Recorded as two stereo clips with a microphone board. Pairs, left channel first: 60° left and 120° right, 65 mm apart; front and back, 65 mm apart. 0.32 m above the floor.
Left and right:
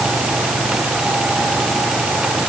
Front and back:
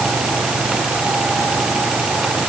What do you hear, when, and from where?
Only background noise.